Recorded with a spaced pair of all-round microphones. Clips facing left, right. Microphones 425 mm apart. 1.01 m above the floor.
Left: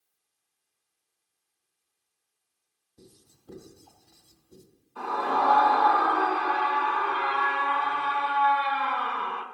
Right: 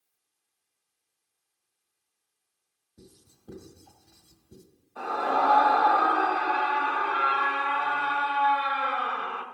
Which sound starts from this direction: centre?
A scream, at 5.0 s.